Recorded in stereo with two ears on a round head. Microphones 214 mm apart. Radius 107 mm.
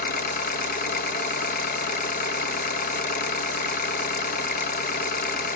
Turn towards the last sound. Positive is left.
turn(degrees=40)  # may be behind; listen again after turning